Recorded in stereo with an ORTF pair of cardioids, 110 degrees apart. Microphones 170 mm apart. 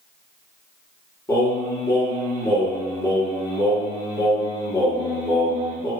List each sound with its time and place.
1.3 s singing: 15° left, 1.5 m